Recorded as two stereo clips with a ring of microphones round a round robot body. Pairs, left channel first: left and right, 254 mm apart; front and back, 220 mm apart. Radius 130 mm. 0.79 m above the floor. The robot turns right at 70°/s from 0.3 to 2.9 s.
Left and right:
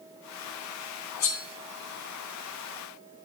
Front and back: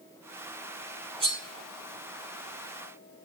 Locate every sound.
1.2 s cutlery clinking: 110° left, 3 m; by 1.4 s 130° left, 3 m